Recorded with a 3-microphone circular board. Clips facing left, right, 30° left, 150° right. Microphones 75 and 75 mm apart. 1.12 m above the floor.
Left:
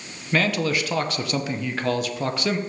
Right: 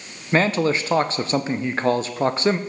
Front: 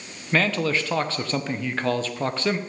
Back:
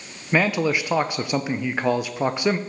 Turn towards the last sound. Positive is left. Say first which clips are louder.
# right 3 dB, back 2 dB
turn(degrees=-90)